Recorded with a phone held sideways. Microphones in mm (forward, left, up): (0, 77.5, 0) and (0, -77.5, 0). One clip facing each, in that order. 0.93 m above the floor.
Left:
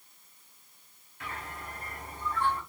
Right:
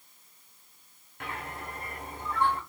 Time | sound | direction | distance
1.2 | a bird | 65° right (ahead or behind) | 0.9 m